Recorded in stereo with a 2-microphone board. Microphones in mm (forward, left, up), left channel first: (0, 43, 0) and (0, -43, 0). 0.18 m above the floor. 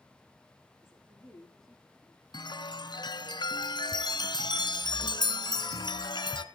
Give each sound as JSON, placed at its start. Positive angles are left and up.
{"t": 0.8, "sound": "a woman speaking", "side_deg": -5, "distance_m": 9.5}
{"t": 2.3, "sound": "a chime", "side_deg": 60, "distance_m": 0.8}